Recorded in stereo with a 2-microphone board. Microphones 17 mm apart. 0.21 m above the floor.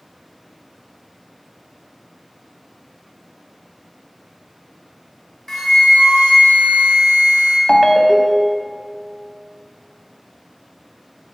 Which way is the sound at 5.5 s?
25° left (ahead or behind).